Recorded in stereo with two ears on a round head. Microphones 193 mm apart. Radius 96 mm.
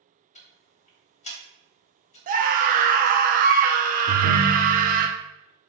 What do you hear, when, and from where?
0.3 s ticking: 35° left (ahead or behind), 1.2 m
2.3 s a scream: 40° right (ahead or behind), 0.8 m
4.1 s a ringtone: 70° right (ahead or behind), 0.8 m